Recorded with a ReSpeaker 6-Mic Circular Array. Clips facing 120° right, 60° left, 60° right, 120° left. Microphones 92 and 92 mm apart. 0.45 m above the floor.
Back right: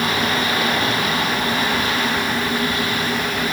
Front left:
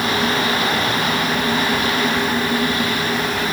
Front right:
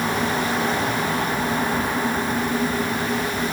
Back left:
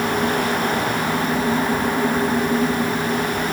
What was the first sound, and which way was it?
Only background noise.